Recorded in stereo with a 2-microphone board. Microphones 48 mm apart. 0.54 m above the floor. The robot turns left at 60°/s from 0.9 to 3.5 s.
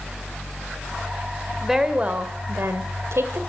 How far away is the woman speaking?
About 1.8 m.